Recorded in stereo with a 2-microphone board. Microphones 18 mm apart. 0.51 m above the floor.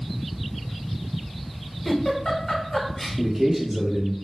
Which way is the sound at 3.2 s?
10° right (ahead or behind).